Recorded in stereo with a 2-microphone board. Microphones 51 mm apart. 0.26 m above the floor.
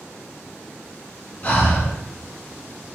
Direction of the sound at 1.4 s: 35° left (ahead or behind).